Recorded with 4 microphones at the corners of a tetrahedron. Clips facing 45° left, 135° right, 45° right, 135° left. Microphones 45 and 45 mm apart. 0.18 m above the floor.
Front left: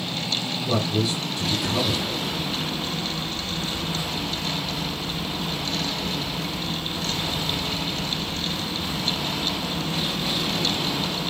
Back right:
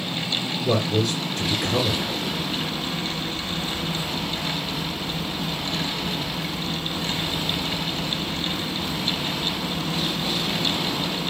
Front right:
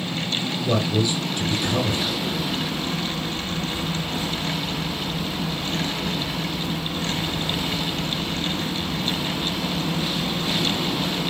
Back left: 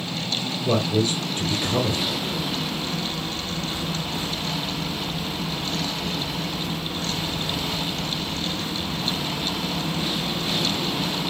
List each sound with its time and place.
0.7 s a man speaking: 165° right, 3 m